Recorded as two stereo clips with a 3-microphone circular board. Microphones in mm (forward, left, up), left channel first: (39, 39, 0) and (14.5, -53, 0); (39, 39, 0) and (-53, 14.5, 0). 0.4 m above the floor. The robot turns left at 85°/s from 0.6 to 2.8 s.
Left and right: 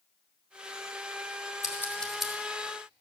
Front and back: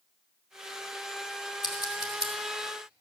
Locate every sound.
1.6 s scissors: 30° left, 1.5 m; by 2.3 s 30° right, 1.5 m